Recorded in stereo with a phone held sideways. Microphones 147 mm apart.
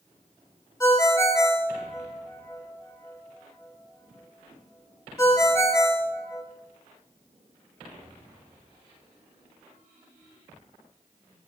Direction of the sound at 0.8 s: 20° left (ahead or behind).